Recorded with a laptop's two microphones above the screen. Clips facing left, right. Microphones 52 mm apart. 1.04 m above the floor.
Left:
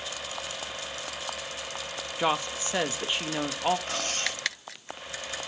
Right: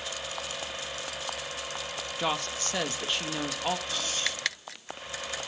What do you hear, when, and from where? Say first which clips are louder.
2.2 s a woman speaking: left 4 dB; 15° left (ahead or behind), 1.0 m
3.9 s cutlery clinking: left 1 dB; 45° left (ahead or behind), 3 m